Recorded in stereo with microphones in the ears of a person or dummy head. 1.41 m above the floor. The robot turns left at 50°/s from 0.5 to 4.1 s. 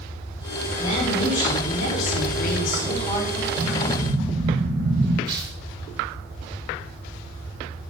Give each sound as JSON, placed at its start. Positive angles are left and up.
{"t": 0.8, "sound": "a woman speaking", "azimuth_deg": 135, "distance_m": 4.5}
{"t": 3.6, "sound": "an explosion", "side_deg": -65, "distance_m": 3.5}
{"t": 5.3, "sound": "tearing paper", "side_deg": -25, "distance_m": 5.0}